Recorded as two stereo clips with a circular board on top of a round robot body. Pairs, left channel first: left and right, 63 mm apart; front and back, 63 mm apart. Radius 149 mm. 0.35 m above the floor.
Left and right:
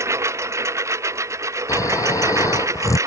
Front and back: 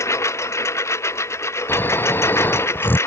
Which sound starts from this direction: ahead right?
A lawn mower, at 0.0 s.